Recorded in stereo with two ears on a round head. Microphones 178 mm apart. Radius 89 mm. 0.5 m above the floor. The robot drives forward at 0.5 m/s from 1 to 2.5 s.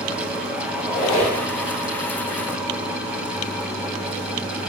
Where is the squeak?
30° left (ahead or behind), 1.9 m.